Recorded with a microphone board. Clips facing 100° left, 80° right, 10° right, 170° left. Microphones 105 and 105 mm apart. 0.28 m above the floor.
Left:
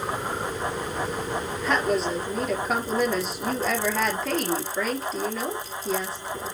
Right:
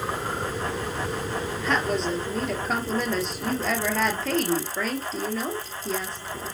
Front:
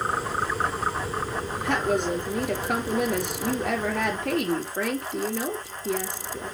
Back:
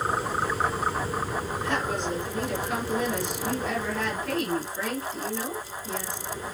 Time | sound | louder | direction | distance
1.6 | a woman speaking | left 2 dB, front 6 dB | 15° left | 5 m